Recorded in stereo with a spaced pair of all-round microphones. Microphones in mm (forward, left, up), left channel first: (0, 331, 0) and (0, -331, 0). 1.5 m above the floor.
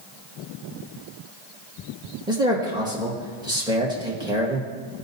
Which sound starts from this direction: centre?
A man speaking, at 2.3 s.